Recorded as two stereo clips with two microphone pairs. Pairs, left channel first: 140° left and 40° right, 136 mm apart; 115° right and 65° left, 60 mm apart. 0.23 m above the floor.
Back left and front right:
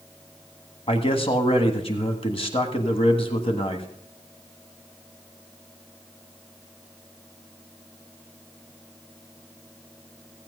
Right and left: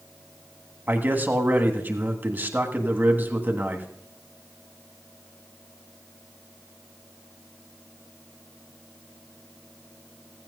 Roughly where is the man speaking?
Behind left.